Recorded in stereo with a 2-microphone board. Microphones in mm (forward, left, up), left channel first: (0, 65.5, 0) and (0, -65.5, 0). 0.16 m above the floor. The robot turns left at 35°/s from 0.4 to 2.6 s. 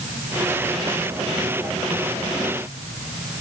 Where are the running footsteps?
I don't hear running footsteps.